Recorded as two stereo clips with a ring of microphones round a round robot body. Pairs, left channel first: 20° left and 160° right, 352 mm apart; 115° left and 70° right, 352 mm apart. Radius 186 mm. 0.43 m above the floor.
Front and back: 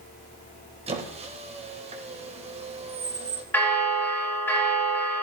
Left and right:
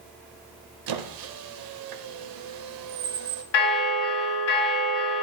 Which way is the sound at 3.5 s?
105° left.